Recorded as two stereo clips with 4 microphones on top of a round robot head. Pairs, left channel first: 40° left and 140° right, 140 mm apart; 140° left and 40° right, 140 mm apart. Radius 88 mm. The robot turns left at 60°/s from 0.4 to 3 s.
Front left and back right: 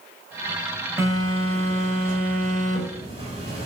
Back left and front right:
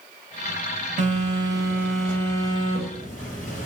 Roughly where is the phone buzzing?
Right.